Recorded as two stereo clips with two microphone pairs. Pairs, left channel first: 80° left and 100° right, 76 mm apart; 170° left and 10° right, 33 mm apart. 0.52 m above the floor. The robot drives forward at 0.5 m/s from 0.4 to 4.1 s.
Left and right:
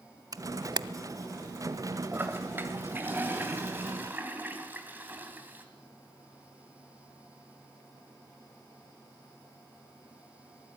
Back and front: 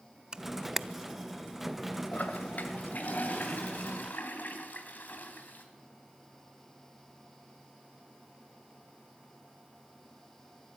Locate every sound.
0.3 s a camera shutter: 70° right, 0.6 m; by 0.8 s 90° right, 0.6 m
2.1 s a toilet flushing: 160° right, 2.5 m; by 5.7 s 165° right, 3 m